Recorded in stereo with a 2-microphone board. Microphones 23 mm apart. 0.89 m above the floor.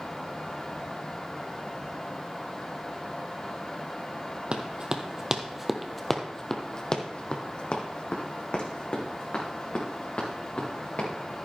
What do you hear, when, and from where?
4.5 s running footsteps: 45° right (ahead or behind), 1.4 m; by 11.1 s 65° left (ahead or behind), 4.5 m